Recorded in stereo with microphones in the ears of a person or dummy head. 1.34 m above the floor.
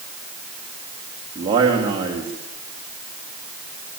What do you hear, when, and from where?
1.4 s a man speaking: 25° right (ahead or behind), 3 m